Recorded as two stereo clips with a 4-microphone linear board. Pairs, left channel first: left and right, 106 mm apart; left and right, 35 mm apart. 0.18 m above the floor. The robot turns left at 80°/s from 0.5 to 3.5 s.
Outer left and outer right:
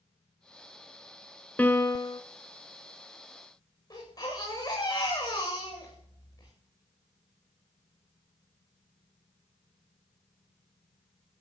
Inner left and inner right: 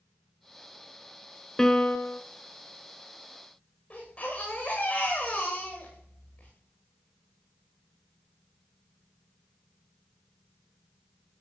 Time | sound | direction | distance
1.6 | a piano | 165° left | 0.8 m
3.9 | a baby crying | 40° left (ahead or behind) | 9 m